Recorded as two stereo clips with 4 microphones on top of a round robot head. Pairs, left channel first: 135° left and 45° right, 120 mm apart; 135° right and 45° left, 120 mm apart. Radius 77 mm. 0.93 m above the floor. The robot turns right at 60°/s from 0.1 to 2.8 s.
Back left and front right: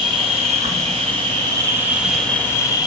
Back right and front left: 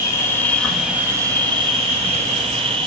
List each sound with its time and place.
0.0 s an insect: 80° right, 2.5 m; by 2.9 s 80° left, 2.5 m